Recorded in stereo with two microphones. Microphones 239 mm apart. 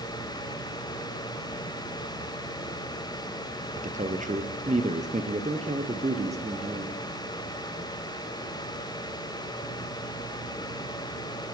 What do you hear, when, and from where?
3.8 s a man speaking: 35° right (ahead or behind), 2 m; by 7.0 s 25° right (ahead or behind), 3.5 m